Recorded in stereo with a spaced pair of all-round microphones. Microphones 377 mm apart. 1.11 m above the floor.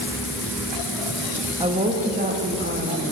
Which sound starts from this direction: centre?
A woman speaking, at 1.6 s.